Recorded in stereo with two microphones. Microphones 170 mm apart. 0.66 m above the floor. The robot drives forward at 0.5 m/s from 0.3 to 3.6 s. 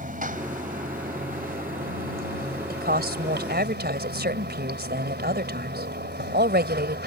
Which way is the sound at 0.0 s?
55° right (ahead or behind).